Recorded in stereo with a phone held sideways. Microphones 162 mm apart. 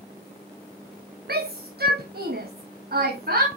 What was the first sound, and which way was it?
A shout, 80° right.